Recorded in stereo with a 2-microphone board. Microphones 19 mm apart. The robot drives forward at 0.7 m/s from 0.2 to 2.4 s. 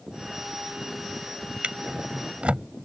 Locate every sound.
1.6 s a drawer: 70° right (ahead or behind); by 2.9 s 65° right (ahead or behind)